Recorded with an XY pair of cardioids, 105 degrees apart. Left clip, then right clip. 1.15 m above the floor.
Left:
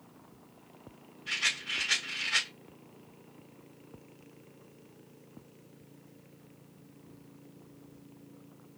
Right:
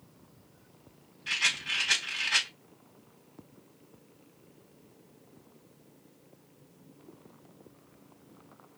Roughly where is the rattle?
Ahead right.